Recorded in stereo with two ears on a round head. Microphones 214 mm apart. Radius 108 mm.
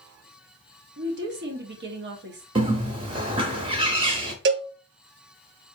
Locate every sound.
1.0 s a woman speaking: 45° right (ahead or behind), 1.0 m
2.5 s a bird: 20° right (ahead or behind), 0.6 m
4.5 s a cowbell: 45° right (ahead or behind), 0.6 m